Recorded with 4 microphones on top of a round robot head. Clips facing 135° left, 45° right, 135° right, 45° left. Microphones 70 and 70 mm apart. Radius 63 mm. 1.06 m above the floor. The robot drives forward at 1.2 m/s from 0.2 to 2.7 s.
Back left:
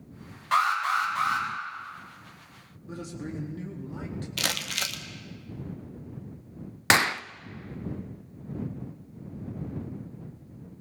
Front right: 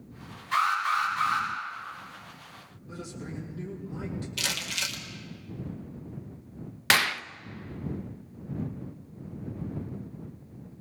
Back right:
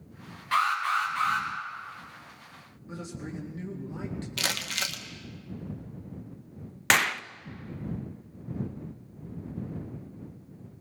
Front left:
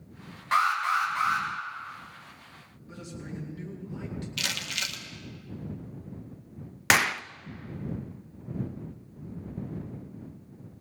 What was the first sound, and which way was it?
An alarm, 110° left.